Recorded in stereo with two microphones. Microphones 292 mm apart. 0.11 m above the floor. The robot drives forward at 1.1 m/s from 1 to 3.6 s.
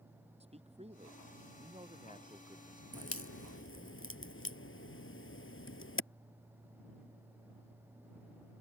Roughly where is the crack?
Left.